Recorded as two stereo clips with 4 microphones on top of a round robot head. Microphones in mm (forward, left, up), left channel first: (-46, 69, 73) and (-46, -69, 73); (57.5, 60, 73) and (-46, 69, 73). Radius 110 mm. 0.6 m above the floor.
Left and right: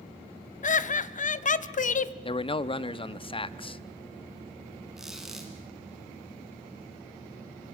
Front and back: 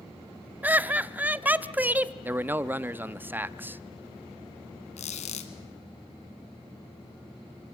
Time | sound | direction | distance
0.6 | laughter | 100° left | 1.1 m
2.2 | a man speaking | 115° left | 0.9 m
5.0 | a squeak | straight ahead | 1.5 m